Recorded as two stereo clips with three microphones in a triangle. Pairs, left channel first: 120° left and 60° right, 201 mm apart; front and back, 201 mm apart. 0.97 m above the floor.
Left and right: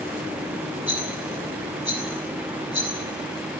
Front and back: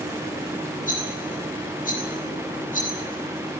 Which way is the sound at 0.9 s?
50° right.